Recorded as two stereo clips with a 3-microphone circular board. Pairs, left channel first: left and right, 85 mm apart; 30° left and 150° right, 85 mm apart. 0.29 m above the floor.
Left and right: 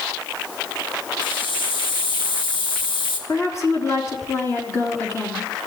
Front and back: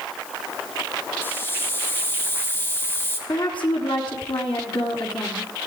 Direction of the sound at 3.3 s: 35° left.